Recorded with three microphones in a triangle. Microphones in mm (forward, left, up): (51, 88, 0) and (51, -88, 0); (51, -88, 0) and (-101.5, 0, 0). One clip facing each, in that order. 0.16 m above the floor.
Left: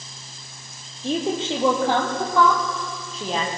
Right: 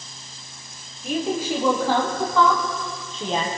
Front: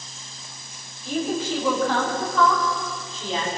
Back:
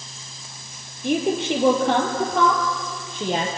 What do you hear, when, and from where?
1.0 s a woman speaking: 150° left, 4.5 m; by 3.5 s straight behind, 5.5 m